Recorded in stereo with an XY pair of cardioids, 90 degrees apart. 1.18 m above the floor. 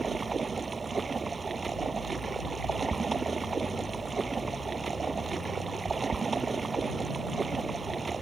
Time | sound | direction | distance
0.0 | running water | 35° right | ?